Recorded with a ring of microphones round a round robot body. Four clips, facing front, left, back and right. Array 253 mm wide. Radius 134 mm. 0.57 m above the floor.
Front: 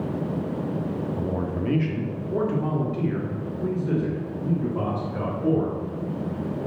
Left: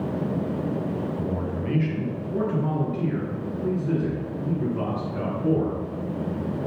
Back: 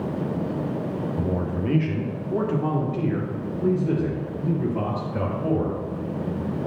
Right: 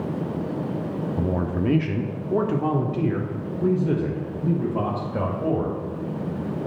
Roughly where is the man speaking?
Right.